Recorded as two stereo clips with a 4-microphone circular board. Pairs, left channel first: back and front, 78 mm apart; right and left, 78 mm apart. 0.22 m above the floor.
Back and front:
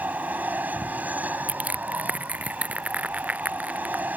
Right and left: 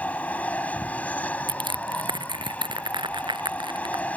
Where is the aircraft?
40° right.